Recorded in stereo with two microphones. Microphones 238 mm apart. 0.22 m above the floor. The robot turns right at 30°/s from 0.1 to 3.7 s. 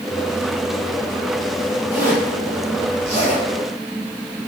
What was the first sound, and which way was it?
A zipper, 15° right (ahead or behind).